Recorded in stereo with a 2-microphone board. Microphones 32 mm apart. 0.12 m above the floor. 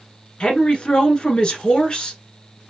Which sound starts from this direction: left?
A woman speaking, at 0.4 s.